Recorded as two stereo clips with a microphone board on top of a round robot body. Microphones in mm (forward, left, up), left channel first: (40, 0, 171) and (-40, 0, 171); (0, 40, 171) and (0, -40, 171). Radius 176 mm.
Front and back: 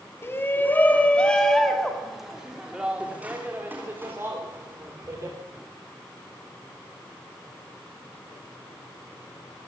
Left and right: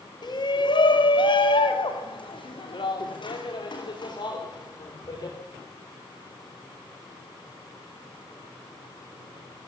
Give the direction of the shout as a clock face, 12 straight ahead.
10 o'clock.